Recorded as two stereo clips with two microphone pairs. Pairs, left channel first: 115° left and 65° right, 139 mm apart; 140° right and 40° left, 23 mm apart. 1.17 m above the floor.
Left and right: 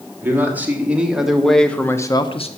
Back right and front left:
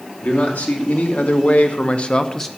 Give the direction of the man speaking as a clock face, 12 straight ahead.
5 o'clock.